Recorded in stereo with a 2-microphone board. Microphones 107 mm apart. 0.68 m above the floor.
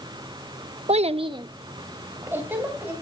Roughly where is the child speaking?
Right.